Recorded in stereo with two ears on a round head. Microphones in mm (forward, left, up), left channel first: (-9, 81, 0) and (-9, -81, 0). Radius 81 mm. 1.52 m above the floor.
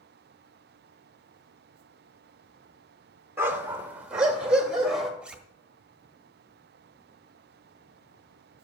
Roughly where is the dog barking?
Centre.